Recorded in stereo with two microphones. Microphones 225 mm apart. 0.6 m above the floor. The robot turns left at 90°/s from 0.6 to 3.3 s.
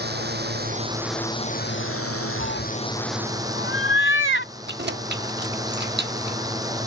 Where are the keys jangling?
50° right (ahead or behind).